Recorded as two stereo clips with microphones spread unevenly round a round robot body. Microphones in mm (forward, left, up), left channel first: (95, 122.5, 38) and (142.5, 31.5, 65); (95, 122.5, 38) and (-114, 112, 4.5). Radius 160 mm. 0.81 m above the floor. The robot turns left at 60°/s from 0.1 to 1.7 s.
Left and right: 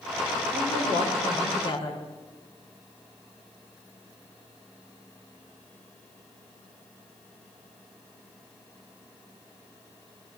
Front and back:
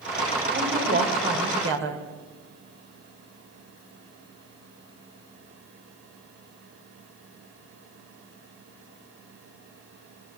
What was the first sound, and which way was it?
A woman speaking, 105° right.